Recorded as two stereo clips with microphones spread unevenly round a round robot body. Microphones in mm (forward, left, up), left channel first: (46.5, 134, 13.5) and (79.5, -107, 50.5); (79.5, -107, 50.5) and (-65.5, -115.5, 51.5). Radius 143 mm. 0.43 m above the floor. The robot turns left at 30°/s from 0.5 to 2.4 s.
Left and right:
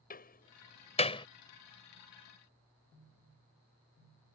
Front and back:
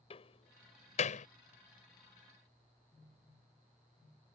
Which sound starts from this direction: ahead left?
A door slam, at 0.1 s.